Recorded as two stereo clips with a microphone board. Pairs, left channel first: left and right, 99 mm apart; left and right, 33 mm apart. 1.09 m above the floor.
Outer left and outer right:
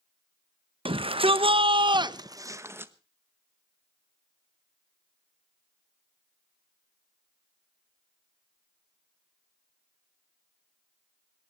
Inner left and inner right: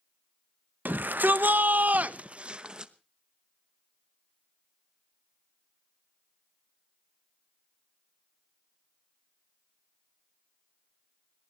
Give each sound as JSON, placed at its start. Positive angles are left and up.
{"t": 0.8, "sound": "a shout", "side_deg": -65, "distance_m": 1.0}